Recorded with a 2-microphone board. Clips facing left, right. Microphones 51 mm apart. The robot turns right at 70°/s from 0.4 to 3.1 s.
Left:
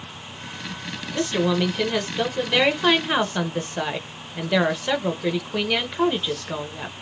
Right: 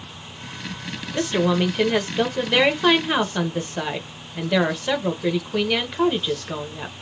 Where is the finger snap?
I don't hear a finger snap.